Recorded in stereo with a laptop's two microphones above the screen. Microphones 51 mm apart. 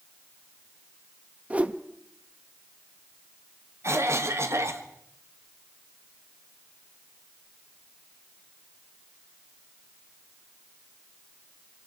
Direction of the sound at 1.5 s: 25° right (ahead or behind).